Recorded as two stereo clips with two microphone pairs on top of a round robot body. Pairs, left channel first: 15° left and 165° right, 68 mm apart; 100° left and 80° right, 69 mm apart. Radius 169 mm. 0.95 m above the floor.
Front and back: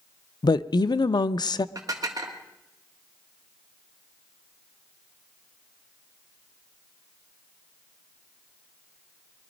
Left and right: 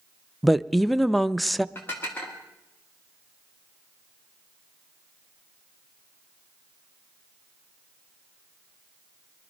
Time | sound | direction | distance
0.4 | a woman speaking | 5° left | 0.6 m
1.8 | dishes clattering | 160° left | 1.5 m